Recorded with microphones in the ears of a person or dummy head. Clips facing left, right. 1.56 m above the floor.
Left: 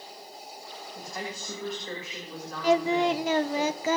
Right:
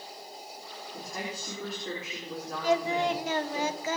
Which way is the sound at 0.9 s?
45° right (ahead or behind).